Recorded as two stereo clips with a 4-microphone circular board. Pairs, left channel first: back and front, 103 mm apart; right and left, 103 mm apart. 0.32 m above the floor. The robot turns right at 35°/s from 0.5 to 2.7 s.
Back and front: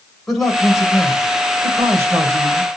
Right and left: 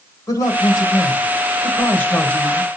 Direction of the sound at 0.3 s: 95° right.